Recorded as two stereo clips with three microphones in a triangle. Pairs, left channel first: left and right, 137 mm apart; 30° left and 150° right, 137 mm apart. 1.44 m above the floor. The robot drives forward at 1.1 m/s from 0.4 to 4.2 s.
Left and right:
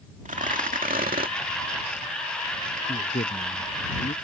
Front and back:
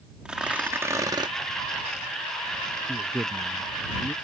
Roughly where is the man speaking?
Behind left.